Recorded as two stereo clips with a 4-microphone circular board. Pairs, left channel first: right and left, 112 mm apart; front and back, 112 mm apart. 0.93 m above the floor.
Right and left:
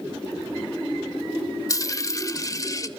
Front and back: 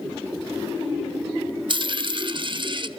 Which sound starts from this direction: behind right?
A dropped coin, at 1.7 s.